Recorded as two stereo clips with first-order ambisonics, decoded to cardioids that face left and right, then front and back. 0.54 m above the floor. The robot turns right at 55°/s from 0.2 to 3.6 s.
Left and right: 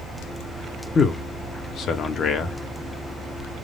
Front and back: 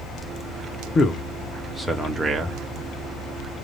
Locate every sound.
0.9 s a man speaking: 35° left, 0.7 m; by 2.6 s 125° left, 0.7 m